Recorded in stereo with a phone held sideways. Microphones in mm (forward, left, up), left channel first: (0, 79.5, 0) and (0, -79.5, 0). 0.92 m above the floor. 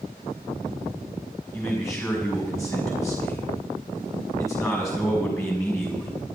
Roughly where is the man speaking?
Left.